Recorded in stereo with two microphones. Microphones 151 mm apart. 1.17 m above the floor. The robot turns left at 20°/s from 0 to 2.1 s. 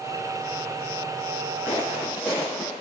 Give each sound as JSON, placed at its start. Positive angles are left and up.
{"t": 1.7, "sound": "footsteps", "side_deg": -20, "distance_m": 5.5}